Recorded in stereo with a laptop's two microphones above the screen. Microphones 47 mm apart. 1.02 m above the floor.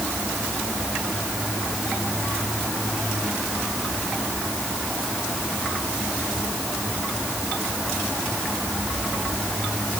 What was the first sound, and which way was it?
Only background noise.